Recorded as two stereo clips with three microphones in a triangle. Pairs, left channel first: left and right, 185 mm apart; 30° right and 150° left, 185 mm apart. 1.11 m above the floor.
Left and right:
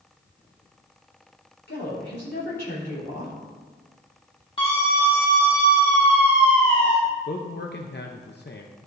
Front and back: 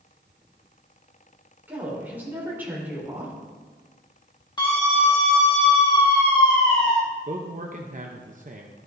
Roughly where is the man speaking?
Left.